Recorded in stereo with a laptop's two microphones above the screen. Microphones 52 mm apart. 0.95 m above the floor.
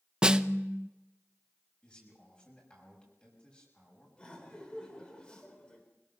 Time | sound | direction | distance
0.2 | a snare drum | 15° right (ahead or behind) | 0.7 m
1.8 | a man speaking | 20° left (ahead or behind) | 6 m
4.2 | laughter | 20° left (ahead or behind) | 4 m